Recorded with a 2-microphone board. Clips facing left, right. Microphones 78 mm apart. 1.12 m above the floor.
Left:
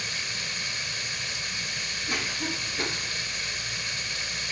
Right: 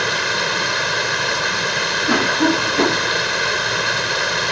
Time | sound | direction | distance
0.0 | running water | 80° right | ?
2.1 | a cough | 85° right | ?